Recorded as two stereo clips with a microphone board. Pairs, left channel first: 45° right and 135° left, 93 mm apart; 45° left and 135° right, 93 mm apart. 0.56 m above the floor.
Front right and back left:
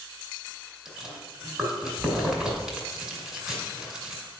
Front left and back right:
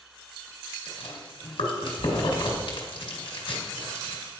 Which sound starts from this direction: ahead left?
Chewing, at 0.8 s.